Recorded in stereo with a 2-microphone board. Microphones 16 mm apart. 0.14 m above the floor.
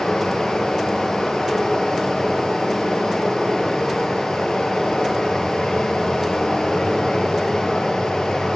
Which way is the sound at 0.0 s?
65° left (ahead or behind).